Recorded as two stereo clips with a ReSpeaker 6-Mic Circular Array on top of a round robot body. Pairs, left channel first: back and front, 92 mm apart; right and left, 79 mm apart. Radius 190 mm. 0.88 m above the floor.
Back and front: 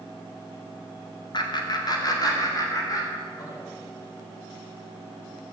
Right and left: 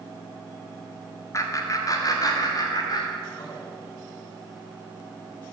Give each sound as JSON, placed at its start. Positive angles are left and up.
{"t": 1.3, "sound": "laughter", "azimuth_deg": -140, "distance_m": 1.6}